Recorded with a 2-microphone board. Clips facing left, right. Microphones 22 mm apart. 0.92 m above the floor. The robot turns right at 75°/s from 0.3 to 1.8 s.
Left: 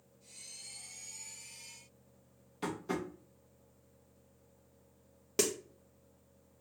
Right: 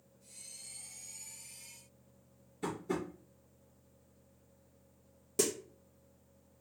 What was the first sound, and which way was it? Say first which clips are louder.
Tapping: even; 60° left (ahead or behind).